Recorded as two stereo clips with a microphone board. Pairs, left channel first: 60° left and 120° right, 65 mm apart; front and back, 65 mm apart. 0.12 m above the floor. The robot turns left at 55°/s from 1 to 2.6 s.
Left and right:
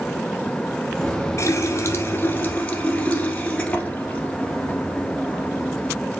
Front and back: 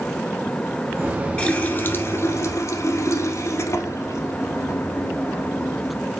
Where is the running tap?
65° left, 1.4 m; by 6.1 s 5° right, 1.4 m.